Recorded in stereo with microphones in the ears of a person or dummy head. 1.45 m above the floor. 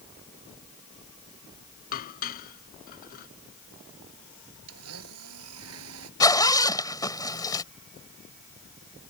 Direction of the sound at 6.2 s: 20° left (ahead or behind).